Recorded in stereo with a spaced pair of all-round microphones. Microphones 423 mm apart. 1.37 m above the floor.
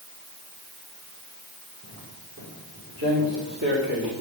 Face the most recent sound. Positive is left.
turn(degrees=-60)  # may be behind; listen again after turning